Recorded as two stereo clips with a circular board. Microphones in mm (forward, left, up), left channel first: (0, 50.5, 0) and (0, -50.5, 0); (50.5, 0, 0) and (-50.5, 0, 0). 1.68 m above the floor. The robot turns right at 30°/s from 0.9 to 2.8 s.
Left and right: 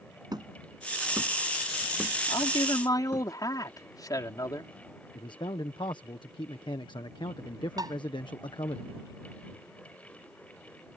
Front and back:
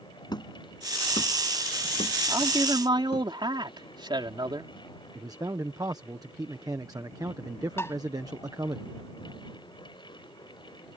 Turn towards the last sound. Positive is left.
turn(degrees=-55)